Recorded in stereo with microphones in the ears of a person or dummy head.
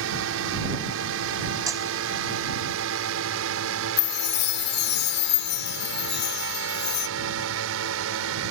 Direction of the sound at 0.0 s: 75° right (ahead or behind).